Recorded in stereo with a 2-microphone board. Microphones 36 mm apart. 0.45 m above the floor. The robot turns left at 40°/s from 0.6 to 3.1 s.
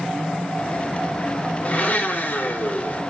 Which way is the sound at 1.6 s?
130° left.